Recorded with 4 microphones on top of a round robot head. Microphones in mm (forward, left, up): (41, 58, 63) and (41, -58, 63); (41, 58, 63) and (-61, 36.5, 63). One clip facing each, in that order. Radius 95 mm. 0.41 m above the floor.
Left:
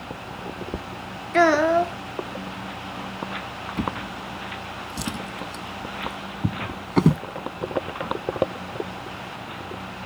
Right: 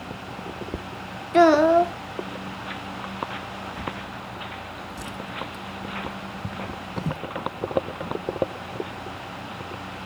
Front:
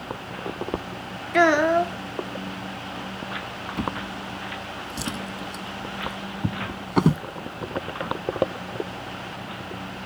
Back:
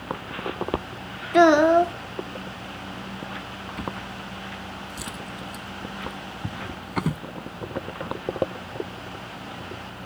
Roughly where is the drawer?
Left.